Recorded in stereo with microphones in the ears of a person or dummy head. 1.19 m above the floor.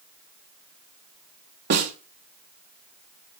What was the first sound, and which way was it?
A snare drum, 55° right (ahead or behind).